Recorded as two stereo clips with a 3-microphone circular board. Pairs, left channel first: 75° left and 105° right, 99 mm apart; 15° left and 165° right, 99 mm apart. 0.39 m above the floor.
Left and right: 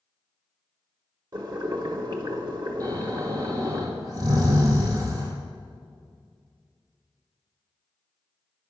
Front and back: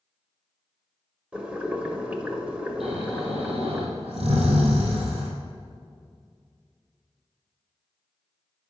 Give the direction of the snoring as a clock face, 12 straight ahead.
5 o'clock.